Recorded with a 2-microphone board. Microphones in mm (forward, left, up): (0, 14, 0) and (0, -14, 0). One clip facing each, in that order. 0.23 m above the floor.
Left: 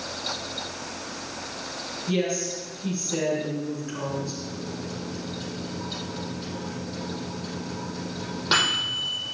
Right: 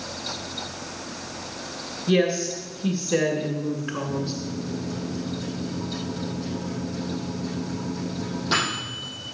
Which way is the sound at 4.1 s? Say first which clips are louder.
Right 3 dB; 30° left (ahead or behind).